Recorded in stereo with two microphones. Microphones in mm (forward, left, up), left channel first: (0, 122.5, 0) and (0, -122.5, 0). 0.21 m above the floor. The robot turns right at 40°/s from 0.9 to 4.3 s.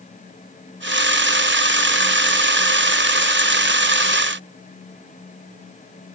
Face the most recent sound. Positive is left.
No sound to turn to.